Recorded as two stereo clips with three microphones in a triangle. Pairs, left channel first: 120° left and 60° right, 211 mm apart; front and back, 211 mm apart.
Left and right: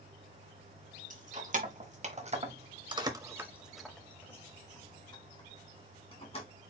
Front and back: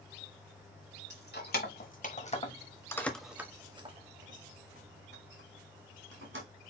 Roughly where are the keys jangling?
Ahead.